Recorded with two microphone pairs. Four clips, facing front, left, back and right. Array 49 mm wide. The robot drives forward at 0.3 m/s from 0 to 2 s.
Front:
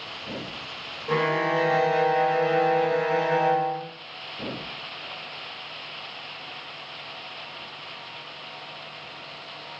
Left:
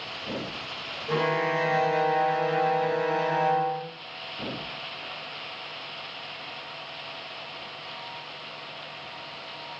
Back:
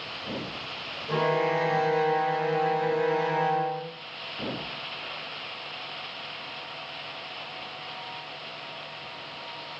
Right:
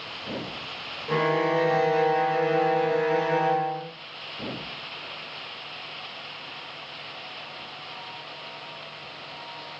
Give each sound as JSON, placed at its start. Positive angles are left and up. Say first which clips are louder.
{"t": 1.1, "sound": "a violin", "louder": "right 2 dB, front 2 dB", "azimuth_deg": 0, "distance_m": 0.6}